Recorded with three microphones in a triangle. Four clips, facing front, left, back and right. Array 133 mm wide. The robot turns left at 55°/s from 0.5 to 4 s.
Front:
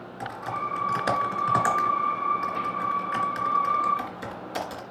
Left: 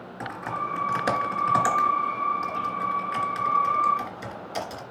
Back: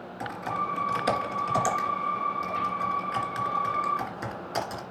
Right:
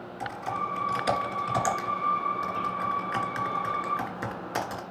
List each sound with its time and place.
0.2 s typing on a keyboard: 90° left, 2 m; by 4.8 s 100° right, 2 m